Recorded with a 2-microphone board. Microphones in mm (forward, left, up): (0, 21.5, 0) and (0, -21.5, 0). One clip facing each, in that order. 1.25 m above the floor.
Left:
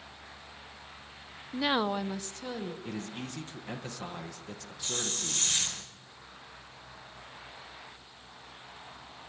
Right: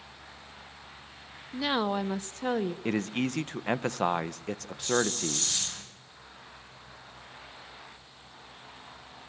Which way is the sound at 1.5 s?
15° left (ahead or behind).